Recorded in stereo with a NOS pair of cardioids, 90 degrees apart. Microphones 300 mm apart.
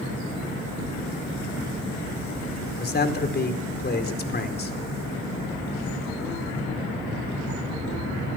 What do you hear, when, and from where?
2.8 s a man speaking: 35° left, 4.5 m